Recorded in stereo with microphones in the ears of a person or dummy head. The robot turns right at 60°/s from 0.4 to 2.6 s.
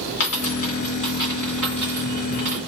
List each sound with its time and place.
0.2 s a dropped coin: 50° left (ahead or behind), 2.5 m; by 2.6 s 40° right (ahead or behind), 2.5 m